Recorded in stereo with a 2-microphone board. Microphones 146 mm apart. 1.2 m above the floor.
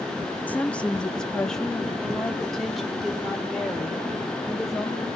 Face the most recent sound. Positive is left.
turn(degrees=0)  # may be behind; listen again after turning